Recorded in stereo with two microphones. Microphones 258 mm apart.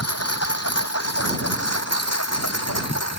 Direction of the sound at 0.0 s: 70° left (ahead or behind).